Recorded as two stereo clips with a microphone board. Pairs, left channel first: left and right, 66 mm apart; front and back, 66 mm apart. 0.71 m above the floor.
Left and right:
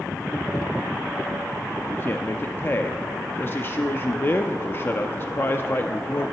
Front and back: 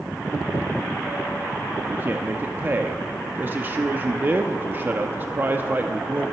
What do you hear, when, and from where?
1.9 s a man speaking: 130° left, 0.6 m